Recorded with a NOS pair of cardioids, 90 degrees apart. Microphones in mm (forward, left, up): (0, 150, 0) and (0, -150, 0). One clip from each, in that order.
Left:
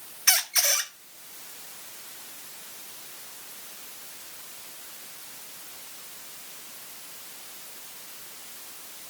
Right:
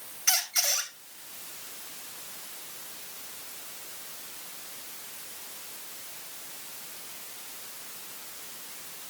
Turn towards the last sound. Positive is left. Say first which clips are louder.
# left 3 dB
turn(degrees=35)